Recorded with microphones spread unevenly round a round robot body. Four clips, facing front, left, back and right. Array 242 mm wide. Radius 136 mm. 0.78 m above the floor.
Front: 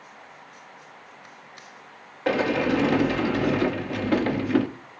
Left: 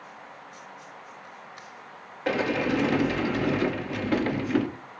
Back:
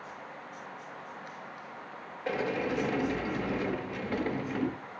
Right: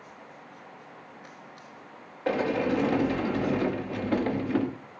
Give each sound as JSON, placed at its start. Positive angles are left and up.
{"t": 2.3, "sound": "a sliding door", "azimuth_deg": 0, "distance_m": 1.9}